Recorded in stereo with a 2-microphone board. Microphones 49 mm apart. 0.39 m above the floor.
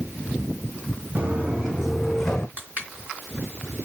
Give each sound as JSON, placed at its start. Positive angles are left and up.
{"t": 1.1, "sound": "footsteps", "side_deg": -30, "distance_m": 1.6}
{"t": 2.6, "sound": "crushing", "side_deg": -30, "distance_m": 3.5}